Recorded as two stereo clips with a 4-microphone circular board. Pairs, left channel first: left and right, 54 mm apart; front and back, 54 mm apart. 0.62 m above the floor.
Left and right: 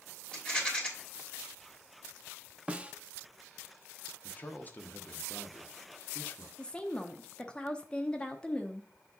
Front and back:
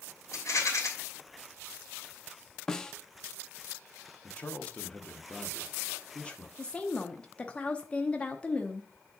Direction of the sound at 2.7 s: 65° right.